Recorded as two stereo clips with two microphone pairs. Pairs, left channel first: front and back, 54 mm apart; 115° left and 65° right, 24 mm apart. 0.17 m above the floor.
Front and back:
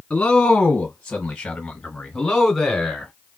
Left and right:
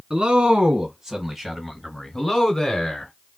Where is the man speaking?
55° right, 1.5 m; by 3.1 s 90° left, 1.7 m.